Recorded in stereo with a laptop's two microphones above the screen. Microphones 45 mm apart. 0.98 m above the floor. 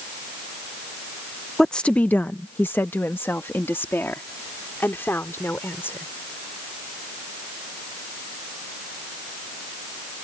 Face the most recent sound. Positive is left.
turn(degrees=60)  # may be behind; listen again after turning